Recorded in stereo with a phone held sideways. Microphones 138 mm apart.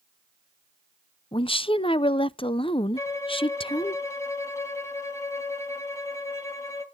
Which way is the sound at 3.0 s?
20° left (ahead or behind).